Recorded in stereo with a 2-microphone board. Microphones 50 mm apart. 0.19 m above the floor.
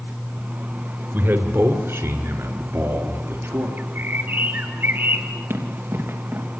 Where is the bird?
45° right (ahead or behind), 2 m.